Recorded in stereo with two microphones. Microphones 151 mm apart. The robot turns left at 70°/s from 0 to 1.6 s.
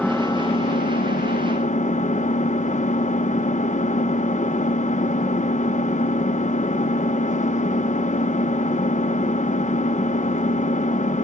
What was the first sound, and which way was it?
An engine running, 170° left.